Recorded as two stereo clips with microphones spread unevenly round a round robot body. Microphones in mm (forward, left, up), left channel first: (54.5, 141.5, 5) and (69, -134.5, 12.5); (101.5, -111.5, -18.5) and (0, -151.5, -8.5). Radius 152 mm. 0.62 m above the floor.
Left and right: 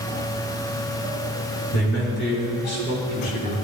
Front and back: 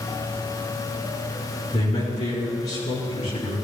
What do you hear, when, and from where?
1.7 s a man speaking: 55° left, 5.5 m; by 3.6 s 35° left, 6.5 m